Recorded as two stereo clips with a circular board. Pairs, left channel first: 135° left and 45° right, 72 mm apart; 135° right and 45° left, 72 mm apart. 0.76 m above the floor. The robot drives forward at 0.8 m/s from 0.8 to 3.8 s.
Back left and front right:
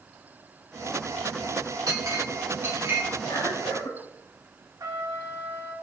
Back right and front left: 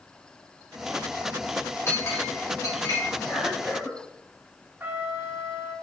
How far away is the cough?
About 3 m.